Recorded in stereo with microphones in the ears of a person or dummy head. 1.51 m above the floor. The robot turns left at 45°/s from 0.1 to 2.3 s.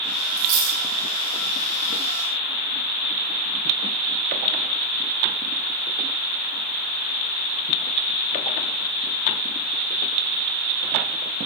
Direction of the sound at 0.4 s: 80° right.